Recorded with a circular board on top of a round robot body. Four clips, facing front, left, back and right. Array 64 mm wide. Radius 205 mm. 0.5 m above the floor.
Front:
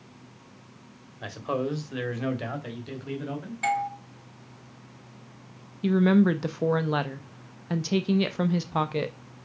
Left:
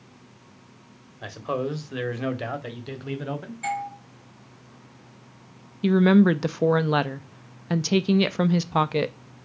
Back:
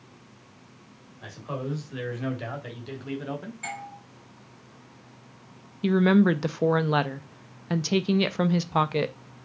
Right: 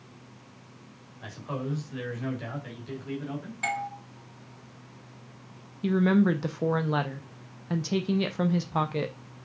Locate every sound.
1.2 s a man speaking: 50° left, 2 m; by 3.5 s 110° left, 2.5 m
3.6 s a doorbell: 40° right, 3 m
5.8 s a woman speaking: 115° left, 0.7 m